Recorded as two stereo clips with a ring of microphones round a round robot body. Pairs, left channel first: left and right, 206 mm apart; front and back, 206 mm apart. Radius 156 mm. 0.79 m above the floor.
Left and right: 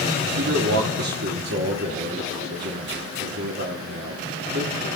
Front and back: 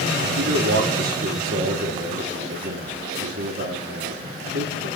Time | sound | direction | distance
0.4 | a man speaking | 130° right | 1.8 m